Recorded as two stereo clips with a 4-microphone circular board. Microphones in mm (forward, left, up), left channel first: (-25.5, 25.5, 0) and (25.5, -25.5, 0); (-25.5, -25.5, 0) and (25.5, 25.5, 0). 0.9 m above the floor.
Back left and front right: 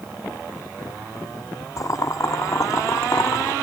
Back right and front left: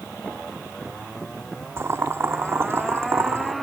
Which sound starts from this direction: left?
Boiling, at 1.8 s.